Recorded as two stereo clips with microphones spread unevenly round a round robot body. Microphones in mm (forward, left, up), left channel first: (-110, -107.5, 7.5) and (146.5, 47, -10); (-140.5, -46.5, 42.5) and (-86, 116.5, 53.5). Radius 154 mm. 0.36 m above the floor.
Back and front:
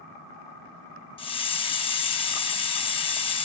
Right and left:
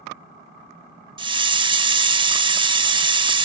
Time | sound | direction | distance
1.2 | a hiss | 135° left | 0.8 m